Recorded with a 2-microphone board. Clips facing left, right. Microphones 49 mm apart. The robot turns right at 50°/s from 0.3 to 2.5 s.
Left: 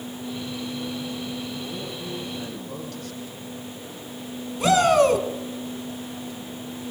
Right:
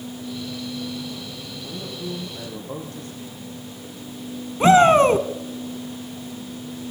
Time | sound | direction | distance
1.6 | a man speaking | 160° left | 5 m
4.6 | a shout | 30° right (ahead or behind) | 1.4 m